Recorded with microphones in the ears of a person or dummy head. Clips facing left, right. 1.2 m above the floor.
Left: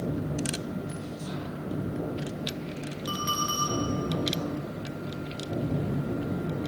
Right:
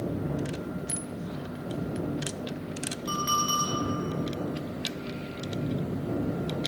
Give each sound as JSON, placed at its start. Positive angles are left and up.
{"t": 3.1, "sound": "a clink", "side_deg": 0, "distance_m": 3.0}